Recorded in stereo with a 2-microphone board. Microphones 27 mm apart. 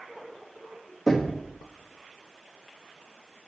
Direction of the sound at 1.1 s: 5° left (ahead or behind).